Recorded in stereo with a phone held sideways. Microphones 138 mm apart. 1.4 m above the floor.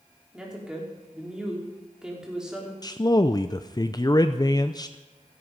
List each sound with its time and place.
0.3 s a woman speaking: 5° right (ahead or behind), 4.5 m
2.8 s a man speaking: 30° left (ahead or behind), 0.5 m